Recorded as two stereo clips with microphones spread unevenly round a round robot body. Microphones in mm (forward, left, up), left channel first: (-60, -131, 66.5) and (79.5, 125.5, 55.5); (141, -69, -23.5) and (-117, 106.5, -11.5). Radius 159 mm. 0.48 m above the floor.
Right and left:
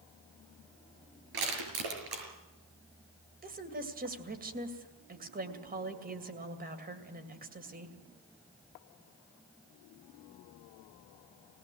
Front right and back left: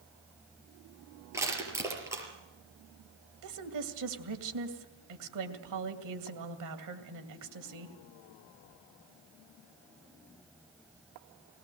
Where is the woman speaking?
120° left, 2.5 m.